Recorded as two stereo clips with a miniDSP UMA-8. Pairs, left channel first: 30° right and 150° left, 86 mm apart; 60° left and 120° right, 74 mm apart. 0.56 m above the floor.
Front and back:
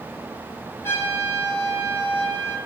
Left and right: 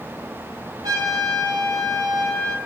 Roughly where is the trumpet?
Right.